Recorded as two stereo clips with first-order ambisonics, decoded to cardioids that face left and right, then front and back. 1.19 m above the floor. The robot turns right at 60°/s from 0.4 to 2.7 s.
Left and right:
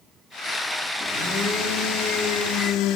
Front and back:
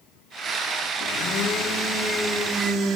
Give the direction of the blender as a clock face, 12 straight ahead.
11 o'clock.